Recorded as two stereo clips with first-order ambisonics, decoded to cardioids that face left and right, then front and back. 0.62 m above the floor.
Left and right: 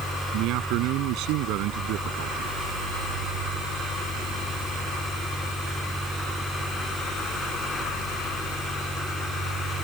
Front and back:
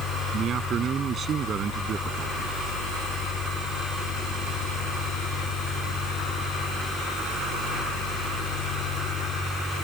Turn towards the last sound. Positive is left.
turn(degrees=-120)